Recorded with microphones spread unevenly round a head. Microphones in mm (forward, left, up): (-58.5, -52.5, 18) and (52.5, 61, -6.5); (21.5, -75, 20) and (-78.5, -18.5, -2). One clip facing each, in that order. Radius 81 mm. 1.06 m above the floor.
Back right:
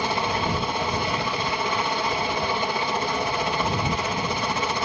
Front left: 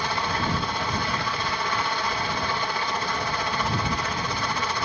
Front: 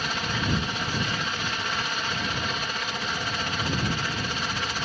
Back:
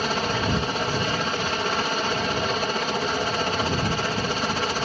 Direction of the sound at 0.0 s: 155° left.